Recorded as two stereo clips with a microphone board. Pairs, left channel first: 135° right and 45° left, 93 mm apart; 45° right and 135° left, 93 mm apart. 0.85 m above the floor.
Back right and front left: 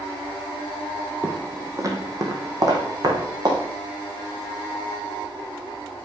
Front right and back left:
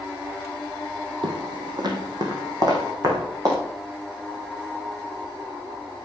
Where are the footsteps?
110° left, 1.8 m; by 3.6 s 85° left, 4.5 m.